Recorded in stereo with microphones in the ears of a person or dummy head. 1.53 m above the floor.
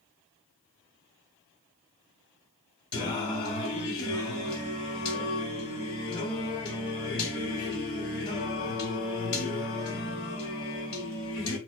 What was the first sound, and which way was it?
Singing, 25° left (ahead or behind).